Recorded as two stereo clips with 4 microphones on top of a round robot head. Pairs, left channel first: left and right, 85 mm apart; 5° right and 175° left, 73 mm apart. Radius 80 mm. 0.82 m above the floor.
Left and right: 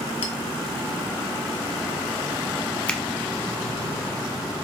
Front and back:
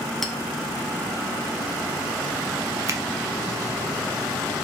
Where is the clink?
80° left, 0.6 m.